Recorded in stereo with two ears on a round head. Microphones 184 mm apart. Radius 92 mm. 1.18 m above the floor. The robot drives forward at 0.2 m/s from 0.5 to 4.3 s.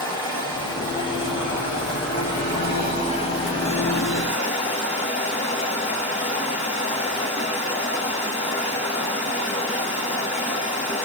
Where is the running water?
25° left (ahead or behind), 1.5 m; by 11.1 s 30° left (ahead or behind), 1.1 m.